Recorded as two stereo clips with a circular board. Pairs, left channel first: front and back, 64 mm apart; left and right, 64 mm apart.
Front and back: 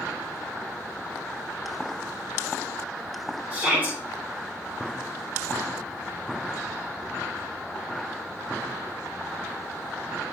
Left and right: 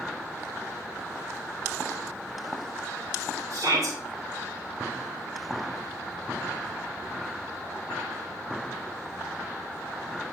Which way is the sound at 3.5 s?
115° right.